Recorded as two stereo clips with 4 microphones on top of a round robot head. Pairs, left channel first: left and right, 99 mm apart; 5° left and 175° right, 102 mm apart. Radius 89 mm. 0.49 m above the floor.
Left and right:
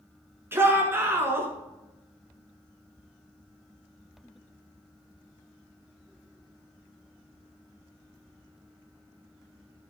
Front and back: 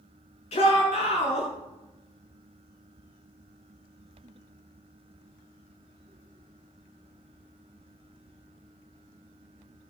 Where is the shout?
25° right, 7 m.